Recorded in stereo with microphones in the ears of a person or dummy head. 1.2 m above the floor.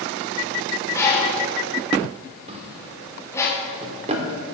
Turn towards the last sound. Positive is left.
turn(degrees=-35)  # may be behind; listen again after turning